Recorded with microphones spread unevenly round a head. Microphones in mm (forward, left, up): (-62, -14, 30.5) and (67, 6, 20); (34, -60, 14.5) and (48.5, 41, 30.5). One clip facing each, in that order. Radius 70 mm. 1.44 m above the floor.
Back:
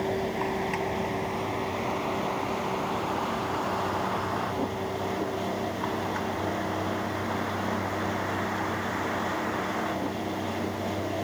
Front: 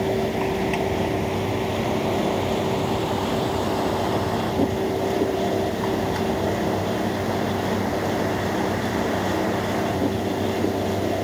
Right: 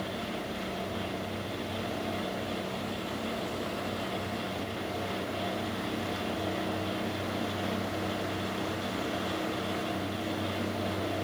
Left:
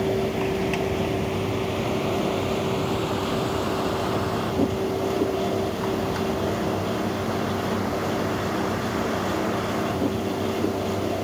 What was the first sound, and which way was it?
A vehicle, 80° left.